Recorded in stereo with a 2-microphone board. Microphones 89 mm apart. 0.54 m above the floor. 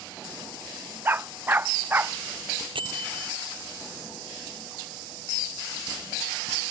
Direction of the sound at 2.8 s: 70° right (ahead or behind).